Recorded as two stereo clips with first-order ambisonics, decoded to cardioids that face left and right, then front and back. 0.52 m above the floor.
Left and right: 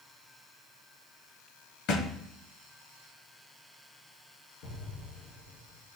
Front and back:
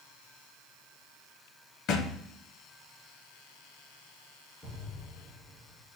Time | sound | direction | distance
1.9 | a thud | 45° left | 1.4 m
4.6 | an explosion | 80° left | 4.5 m